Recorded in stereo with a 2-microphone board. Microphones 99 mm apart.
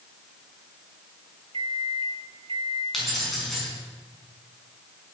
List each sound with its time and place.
1.5 s a microwave: 75° right (ahead or behind), 1.5 m
2.9 s keys jangling: centre (ahead or behind), 5 m